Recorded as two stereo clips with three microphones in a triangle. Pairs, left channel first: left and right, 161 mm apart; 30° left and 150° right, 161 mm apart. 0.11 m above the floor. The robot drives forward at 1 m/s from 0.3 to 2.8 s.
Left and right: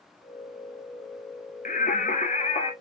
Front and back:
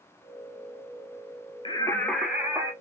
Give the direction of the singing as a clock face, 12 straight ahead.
9 o'clock.